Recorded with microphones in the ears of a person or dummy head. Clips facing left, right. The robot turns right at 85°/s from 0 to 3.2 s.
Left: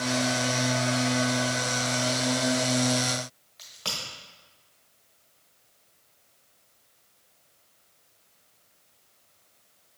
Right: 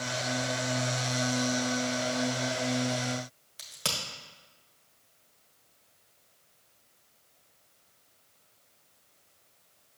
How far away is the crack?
About 1.4 m.